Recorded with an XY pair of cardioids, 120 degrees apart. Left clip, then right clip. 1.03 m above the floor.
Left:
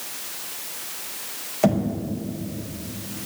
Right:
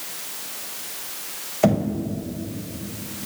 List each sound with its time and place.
1.6 s knocking: 10° right, 5.5 m